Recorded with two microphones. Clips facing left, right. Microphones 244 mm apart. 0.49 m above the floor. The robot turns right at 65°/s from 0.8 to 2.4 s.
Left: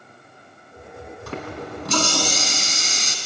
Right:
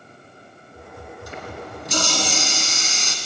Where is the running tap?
70° left, 4 m; by 3.1 s 140° left, 4 m.